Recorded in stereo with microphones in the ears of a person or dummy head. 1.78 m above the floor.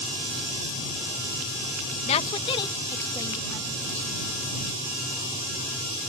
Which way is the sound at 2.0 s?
35° left (ahead or behind).